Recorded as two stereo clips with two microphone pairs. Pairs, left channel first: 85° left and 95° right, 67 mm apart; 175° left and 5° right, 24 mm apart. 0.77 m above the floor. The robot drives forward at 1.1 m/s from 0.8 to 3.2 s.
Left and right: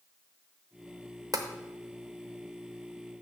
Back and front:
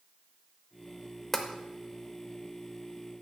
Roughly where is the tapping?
Behind right.